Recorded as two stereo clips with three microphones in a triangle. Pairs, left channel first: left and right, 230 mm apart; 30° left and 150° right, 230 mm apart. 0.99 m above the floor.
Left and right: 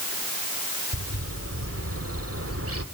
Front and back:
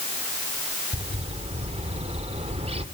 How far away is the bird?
About 1.8 m.